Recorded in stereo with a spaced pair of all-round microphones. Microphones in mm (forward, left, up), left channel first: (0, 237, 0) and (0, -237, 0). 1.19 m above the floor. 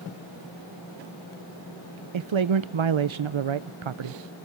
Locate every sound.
2.1 s a man speaking: 65° right (ahead or behind), 0.6 m